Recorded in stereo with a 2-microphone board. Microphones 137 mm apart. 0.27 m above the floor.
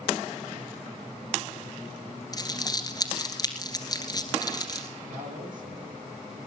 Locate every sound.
2.3 s crumpling: 30° left (ahead or behind), 2 m
5.1 s a man speaking: 80° right, 8 m